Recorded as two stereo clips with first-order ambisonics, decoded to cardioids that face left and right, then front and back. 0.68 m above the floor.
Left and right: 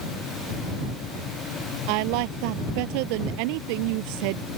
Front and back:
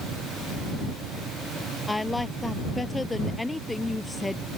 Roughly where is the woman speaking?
Right.